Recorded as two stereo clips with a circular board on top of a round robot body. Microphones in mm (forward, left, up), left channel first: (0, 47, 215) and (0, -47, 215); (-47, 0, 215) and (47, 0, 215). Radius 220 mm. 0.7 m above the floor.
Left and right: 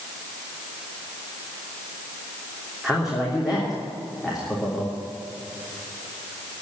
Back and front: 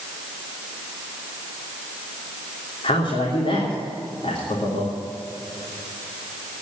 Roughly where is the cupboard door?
No cupboard door in this recording.